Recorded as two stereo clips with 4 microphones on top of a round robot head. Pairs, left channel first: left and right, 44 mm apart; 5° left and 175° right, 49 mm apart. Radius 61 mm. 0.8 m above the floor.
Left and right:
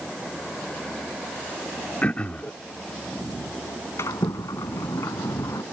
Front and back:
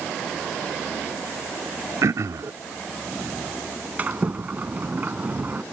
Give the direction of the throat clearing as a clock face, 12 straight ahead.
7 o'clock.